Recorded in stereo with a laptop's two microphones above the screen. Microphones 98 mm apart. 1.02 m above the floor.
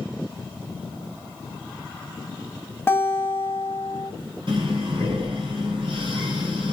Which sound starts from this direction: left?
A guitar, at 2.9 s.